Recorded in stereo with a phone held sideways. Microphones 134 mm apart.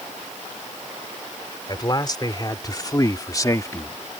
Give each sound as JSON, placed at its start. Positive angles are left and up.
{"t": 1.7, "sound": "a man speaking", "side_deg": 30}